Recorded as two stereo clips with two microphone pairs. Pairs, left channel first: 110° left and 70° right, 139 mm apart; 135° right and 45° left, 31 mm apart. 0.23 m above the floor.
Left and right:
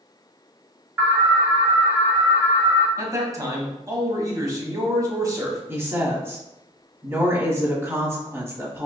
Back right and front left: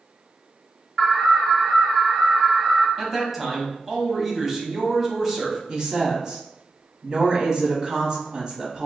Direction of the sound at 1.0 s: 100° right.